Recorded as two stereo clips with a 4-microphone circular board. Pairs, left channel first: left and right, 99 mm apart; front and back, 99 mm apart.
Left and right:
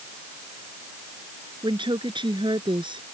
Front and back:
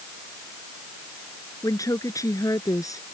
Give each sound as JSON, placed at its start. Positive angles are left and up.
{"t": 1.6, "sound": "a woman speaking", "azimuth_deg": -55}